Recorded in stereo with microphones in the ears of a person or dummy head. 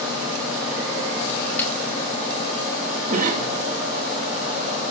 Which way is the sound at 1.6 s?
10° left (ahead or behind).